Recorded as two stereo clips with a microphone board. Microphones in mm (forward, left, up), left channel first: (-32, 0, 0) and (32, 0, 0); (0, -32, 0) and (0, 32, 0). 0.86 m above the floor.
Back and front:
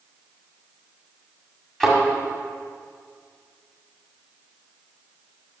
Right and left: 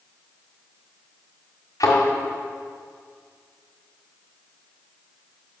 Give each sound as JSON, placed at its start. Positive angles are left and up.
{"t": 1.8, "sound": "a thud", "azimuth_deg": -95, "distance_m": 1.9}